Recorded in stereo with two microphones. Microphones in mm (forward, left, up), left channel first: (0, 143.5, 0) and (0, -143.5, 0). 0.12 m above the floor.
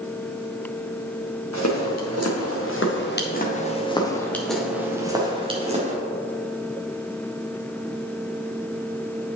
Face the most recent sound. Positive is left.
turn(degrees=-25)  # may be behind; listen again after turning